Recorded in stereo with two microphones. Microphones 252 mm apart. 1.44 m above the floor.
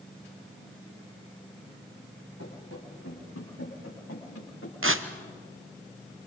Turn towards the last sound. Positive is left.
turn(degrees=-60)  # may be behind; listen again after turning